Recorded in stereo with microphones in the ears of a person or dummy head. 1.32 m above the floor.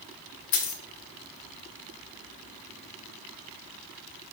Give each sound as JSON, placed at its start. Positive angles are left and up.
{"t": 0.5, "sound": "a dropped coin", "side_deg": 55, "distance_m": 1.1}